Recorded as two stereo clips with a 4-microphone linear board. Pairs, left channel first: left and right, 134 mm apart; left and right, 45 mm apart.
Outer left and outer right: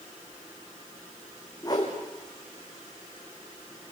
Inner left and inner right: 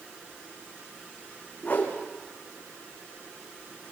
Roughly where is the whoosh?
Left.